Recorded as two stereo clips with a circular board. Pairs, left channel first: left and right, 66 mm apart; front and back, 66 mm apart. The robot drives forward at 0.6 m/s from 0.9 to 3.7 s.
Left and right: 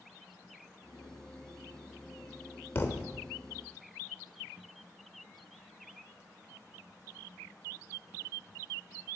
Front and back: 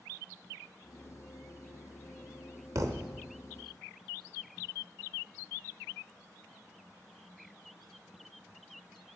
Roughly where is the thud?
Behind left.